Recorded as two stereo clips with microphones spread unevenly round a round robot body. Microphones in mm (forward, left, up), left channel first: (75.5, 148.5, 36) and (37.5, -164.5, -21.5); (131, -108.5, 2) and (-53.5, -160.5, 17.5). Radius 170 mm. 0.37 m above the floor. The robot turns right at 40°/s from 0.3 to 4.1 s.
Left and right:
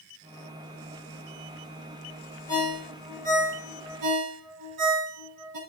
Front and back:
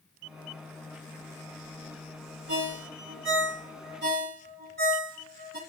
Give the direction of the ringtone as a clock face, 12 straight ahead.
7 o'clock.